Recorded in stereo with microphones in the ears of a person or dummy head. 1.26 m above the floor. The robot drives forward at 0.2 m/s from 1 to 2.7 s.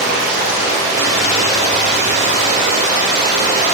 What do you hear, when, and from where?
0.0 s running water: 30° right (ahead or behind), 0.8 m; by 3.8 s 25° right (ahead or behind), 0.9 m